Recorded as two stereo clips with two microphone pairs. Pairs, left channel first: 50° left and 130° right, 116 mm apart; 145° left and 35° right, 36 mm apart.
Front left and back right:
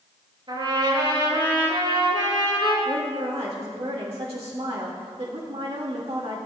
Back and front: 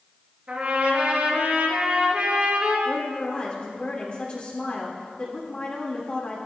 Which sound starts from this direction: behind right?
A woman speaking, at 2.9 s.